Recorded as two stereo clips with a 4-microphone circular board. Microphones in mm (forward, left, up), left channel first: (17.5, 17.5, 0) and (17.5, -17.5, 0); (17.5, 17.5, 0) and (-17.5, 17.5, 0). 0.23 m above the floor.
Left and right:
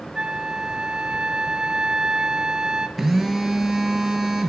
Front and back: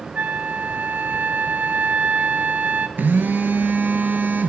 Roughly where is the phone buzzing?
Behind.